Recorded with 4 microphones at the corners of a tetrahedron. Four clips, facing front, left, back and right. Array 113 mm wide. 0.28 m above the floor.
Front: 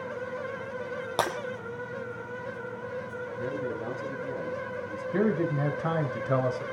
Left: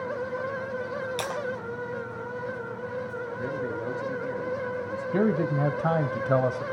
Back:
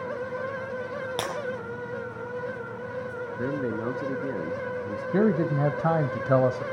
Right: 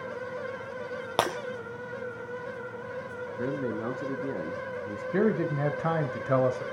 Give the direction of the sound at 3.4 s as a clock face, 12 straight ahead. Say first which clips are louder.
Right 2 dB, back 4 dB; 5 o'clock.